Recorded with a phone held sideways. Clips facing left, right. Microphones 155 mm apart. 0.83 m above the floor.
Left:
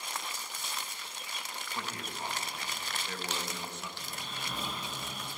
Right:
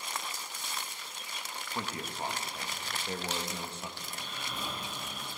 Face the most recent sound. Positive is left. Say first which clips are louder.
# even
turn(degrees=35)  # may be behind; listen again after turning